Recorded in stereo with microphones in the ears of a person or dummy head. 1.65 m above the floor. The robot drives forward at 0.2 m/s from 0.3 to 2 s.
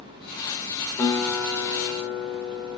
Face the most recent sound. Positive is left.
turn(degrees=10)  # may be behind; listen again after turning